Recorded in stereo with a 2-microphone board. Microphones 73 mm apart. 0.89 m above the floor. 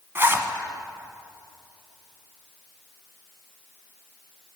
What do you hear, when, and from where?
0.1 s a zipper: 30° right (ahead or behind), 1.0 m